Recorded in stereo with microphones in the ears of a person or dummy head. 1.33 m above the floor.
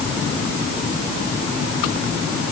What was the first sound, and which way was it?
Only background noise.